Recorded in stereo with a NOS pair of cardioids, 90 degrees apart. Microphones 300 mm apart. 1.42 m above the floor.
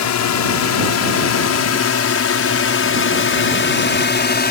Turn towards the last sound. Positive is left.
turn(degrees=35)